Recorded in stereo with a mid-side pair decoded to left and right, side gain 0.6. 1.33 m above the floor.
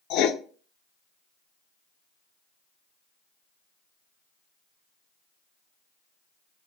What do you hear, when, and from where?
0.1 s writing: 65° left, 0.5 m